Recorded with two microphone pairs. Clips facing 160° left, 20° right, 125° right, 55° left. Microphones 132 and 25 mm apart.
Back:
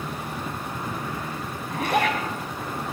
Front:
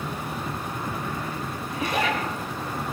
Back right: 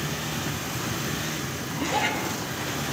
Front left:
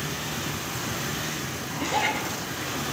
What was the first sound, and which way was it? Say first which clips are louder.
A zipper: back 3 dB, even; 140° left.